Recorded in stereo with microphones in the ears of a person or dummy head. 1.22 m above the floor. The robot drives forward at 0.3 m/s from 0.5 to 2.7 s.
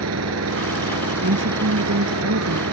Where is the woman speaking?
65° right (ahead or behind).